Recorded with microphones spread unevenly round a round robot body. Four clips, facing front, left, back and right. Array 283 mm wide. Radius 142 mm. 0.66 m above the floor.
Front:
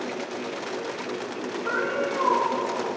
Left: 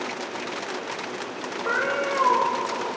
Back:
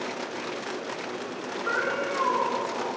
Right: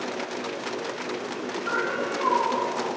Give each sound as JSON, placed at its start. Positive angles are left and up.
{"t": 1.6, "sound": "a cat meowing", "azimuth_deg": 60, "distance_m": 1.4}